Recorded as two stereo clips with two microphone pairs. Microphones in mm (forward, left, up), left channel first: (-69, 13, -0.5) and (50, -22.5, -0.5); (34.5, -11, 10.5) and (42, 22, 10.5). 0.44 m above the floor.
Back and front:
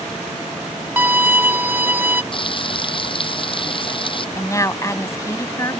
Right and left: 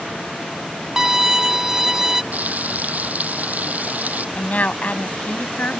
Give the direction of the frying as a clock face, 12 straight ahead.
8 o'clock.